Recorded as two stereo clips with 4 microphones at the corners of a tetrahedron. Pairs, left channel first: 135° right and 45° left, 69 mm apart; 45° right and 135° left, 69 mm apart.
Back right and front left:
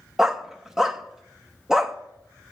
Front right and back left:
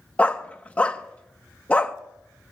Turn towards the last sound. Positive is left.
turn(degrees=-25)